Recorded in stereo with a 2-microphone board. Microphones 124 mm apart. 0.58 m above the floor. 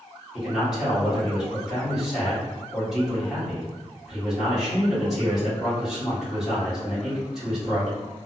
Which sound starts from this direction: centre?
A man speaking, at 0.3 s.